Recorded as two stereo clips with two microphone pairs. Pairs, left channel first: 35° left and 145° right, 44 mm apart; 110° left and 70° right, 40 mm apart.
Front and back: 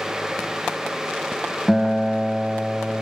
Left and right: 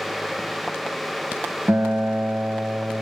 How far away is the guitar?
About 1.3 m.